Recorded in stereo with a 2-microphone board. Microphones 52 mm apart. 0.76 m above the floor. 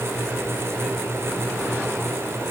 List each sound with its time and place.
Only background noise.